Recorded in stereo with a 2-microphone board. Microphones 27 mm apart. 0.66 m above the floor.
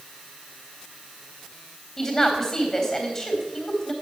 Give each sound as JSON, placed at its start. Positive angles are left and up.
{"t": 2.0, "sound": "a woman speaking", "side_deg": 15, "distance_m": 3.5}